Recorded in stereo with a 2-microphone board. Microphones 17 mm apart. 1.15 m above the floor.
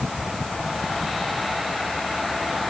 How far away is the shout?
No shout in this recording.